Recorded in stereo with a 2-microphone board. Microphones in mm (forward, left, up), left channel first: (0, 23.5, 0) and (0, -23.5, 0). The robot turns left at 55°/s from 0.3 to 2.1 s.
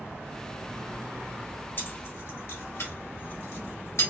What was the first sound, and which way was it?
Keys jangling, 50° left (ahead or behind).